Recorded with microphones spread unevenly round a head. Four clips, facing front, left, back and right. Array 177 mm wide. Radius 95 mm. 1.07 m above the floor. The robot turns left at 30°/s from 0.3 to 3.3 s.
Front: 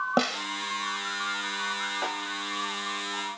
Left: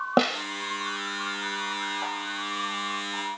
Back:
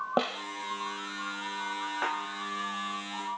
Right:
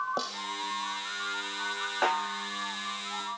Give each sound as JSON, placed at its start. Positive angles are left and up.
{"t": 0.2, "sound": "a snare drum", "azimuth_deg": 65}
{"t": 2.0, "sound": "a snare drum", "azimuth_deg": -100}